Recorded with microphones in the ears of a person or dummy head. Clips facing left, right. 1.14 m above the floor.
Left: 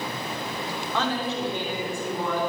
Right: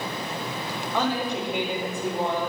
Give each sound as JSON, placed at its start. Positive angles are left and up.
{"t": 0.9, "sound": "a woman speaking", "side_deg": -5, "distance_m": 4.0}